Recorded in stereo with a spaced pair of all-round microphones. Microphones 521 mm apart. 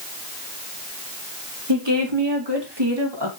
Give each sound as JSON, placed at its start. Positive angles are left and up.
{"t": 1.7, "sound": "a woman speaking", "side_deg": -55, "distance_m": 3.0}